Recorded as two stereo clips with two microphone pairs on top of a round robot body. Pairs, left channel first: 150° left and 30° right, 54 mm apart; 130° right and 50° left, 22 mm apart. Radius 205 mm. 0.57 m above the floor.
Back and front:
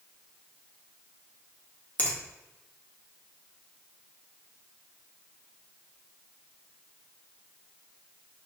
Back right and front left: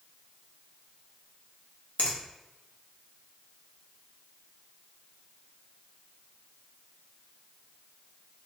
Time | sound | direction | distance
2.0 | a finger snap | 155° right | 0.9 m